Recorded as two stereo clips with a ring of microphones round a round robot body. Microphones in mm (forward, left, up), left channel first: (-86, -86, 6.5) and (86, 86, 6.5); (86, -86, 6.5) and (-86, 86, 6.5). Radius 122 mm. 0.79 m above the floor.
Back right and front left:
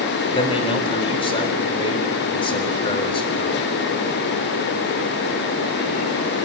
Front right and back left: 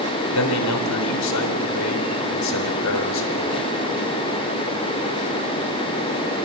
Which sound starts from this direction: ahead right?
A man speaking, at 0.3 s.